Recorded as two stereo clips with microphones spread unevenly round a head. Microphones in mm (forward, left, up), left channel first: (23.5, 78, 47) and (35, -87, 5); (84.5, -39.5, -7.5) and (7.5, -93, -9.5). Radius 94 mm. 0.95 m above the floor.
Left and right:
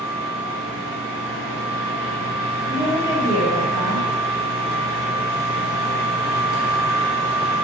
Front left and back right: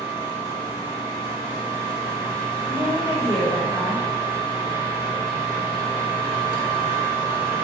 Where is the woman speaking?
20° right, 1.5 m.